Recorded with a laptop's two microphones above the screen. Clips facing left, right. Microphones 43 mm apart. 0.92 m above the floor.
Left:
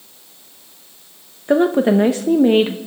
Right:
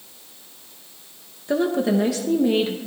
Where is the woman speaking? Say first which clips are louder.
Left 6 dB; 40° left (ahead or behind), 0.9 m.